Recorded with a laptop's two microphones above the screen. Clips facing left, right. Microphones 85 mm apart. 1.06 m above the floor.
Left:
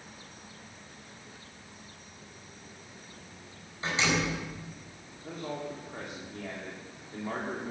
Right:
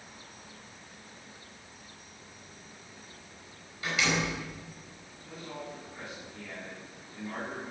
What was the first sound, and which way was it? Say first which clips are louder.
A door slam: left 1 dB; 30° left (ahead or behind).